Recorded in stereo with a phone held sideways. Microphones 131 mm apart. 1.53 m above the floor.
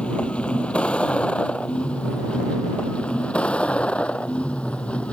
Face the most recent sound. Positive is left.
turn(degrees=10)  # may be behind; listen again after turning